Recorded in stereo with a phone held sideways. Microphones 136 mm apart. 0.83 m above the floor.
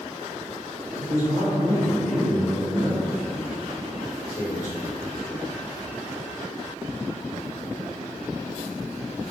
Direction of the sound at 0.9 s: 75° left (ahead or behind).